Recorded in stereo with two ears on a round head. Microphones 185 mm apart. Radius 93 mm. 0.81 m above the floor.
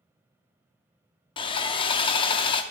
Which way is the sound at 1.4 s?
25° left (ahead or behind).